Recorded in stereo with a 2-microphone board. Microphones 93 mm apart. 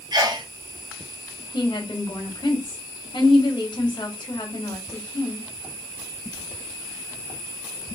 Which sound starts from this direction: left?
A woman speaking, at 1.5 s.